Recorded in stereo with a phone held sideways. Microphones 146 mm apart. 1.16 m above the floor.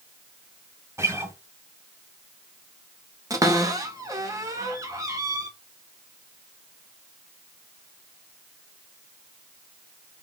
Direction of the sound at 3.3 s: 25° right (ahead or behind).